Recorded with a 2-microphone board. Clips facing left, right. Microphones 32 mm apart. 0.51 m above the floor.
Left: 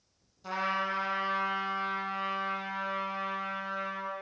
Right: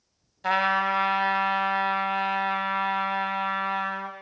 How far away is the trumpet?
About 0.7 m.